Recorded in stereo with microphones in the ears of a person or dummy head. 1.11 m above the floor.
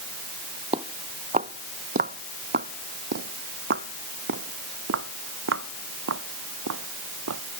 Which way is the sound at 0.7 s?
30° right (ahead or behind).